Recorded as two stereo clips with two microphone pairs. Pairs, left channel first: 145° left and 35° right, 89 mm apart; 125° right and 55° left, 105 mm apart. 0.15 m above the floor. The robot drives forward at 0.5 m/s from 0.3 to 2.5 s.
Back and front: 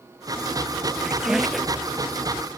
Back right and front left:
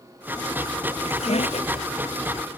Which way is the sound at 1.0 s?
115° right.